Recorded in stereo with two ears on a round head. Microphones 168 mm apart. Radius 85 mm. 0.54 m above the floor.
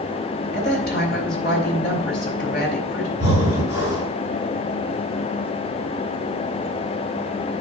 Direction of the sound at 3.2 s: 75° left (ahead or behind).